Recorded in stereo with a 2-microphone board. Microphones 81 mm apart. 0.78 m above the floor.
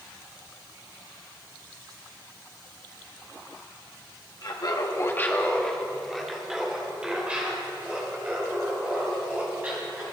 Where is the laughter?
60° left (ahead or behind), 1.0 m; by 10.0 s 20° right (ahead or behind), 5.5 m.